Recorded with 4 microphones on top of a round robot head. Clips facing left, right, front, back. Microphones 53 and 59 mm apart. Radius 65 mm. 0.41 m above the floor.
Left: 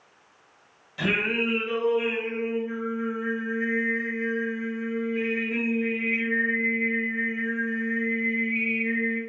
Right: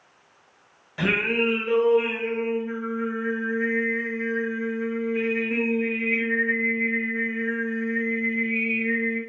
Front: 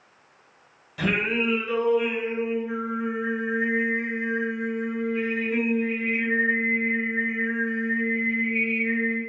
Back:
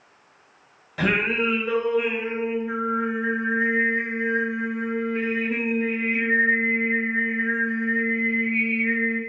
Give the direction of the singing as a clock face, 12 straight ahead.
5 o'clock.